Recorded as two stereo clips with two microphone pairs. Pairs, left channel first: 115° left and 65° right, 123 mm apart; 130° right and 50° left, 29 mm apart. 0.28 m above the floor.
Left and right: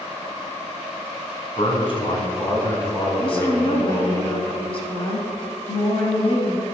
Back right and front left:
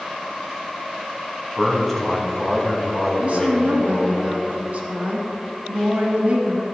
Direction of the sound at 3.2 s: 80° left.